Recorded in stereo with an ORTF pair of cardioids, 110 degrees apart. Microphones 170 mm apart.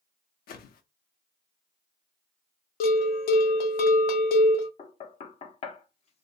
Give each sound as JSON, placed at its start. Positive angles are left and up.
{"t": 0.5, "sound": "a whoosh", "azimuth_deg": 60, "distance_m": 0.6}
{"t": 2.8, "sound": "a bell", "azimuth_deg": 65, "distance_m": 0.7}
{"t": 4.8, "sound": "knocking", "azimuth_deg": 40, "distance_m": 0.6}